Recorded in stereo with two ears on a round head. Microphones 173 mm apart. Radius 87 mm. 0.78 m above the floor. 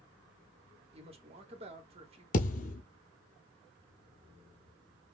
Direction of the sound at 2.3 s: 40° left (ahead or behind).